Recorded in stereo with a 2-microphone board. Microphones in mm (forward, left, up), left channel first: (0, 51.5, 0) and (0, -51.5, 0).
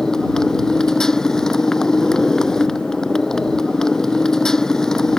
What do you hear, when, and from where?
0.0 s a motorcycle: 5° left (ahead or behind)